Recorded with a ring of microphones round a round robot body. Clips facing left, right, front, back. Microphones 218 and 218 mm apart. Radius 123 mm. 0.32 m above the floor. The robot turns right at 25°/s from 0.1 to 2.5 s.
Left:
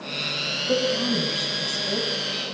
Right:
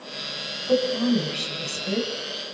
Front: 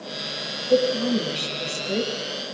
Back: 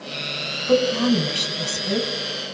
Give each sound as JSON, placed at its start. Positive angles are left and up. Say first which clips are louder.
{"t": 0.7, "sound": "a woman speaking", "louder": "right 3 dB, back 2 dB", "azimuth_deg": 165, "distance_m": 2.5}